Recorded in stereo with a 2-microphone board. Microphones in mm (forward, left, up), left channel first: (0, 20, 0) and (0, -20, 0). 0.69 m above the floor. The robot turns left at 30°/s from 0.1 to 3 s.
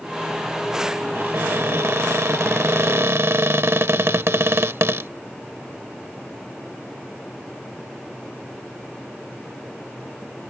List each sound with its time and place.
1.1 s a cupboard door: 55° right; by 5.1 s 110° right